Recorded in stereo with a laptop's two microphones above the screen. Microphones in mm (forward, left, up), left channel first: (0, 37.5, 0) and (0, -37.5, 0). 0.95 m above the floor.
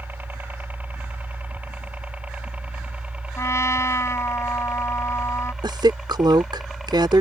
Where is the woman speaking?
80° right.